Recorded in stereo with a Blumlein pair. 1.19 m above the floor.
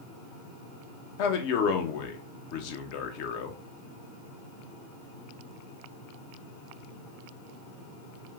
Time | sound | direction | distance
1.2 | a man speaking | 45° left | 0.6 m